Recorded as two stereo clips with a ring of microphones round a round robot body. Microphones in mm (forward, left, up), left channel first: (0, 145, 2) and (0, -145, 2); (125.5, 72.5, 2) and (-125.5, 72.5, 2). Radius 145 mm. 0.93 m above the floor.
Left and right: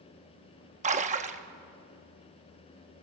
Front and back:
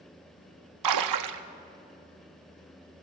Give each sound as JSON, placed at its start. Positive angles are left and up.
{"t": 0.8, "sound": "a splash", "azimuth_deg": -155, "distance_m": 0.8}